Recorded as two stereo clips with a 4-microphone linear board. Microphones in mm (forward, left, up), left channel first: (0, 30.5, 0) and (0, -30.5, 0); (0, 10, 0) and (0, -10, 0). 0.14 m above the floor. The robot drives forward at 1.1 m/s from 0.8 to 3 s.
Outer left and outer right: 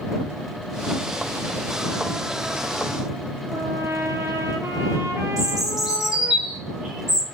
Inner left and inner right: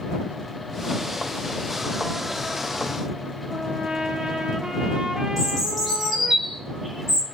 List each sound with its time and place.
3.5 s a trumpet: 50° right (ahead or behind), 1.2 m
5.4 s a bird: 10° right (ahead or behind), 1.9 m